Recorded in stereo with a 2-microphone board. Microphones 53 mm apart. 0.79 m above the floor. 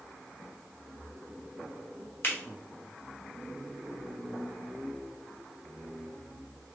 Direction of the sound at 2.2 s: 40° left (ahead or behind).